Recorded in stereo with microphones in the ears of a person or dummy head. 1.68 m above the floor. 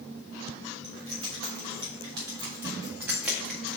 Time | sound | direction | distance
0.8 | keys jangling | 35° right (ahead or behind) | 3.5 m